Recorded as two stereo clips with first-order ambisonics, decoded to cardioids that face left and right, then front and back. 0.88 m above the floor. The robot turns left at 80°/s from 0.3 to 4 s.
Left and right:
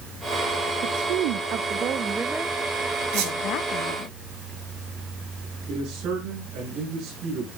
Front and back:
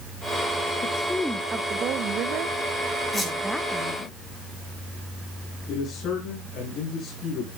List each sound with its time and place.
0.8 s a woman speaking: 55° right, 0.6 m; by 4.1 s 50° left, 0.6 m
3.1 s a squeak: 65° right, 4.5 m; by 3.3 s 85° right, 4.5 m
5.7 s a man speaking: 50° right, 9.5 m